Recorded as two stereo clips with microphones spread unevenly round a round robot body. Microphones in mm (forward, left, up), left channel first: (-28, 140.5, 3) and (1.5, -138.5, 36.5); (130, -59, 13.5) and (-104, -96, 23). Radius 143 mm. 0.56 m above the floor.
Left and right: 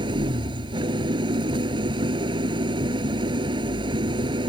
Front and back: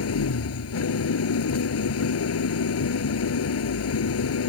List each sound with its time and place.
0.0 s an engine running: 10° right